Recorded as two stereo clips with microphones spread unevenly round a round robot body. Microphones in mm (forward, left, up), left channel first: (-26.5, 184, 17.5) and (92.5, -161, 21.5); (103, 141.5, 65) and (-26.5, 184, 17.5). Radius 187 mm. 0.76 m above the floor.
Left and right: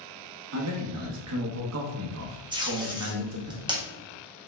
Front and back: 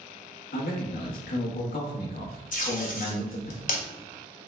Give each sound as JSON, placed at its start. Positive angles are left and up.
{"t": 0.5, "sound": "a man speaking", "azimuth_deg": -30, "distance_m": 0.9}
{"t": 2.5, "sound": "tape being pulled", "azimuth_deg": 5, "distance_m": 1.3}